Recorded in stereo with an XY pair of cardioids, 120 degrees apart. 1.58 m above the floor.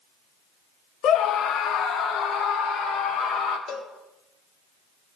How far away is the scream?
About 0.7 m.